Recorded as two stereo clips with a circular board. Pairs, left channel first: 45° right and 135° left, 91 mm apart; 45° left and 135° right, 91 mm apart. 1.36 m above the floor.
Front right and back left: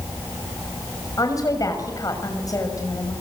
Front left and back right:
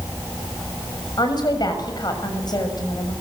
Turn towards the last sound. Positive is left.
turn(degrees=5)